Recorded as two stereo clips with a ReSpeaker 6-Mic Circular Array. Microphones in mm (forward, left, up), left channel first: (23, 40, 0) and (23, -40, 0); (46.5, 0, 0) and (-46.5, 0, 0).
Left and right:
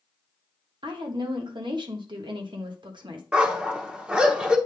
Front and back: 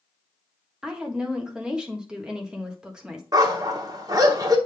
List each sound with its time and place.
0.8 s a woman speaking: 100° right, 1.2 m
3.3 s a dog barking: 165° right, 1.0 m